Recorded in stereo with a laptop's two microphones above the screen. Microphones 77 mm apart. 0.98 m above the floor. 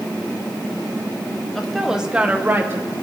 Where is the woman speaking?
5° left (ahead or behind), 1.4 m; by 2.9 s 35° right (ahead or behind), 1.6 m.